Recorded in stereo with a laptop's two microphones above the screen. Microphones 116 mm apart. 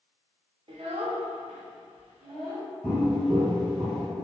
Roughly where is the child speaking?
Right.